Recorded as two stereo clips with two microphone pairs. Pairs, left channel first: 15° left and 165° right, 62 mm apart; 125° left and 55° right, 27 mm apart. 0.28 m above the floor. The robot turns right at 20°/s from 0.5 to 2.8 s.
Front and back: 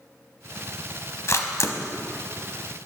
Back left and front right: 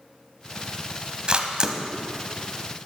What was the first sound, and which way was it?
A camera shutter, 10° right.